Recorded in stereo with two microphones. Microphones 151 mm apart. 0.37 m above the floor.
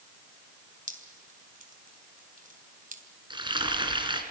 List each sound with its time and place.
0.9 s dripping: 60° right (ahead or behind), 3 m
3.3 s frying: 30° right (ahead or behind), 3 m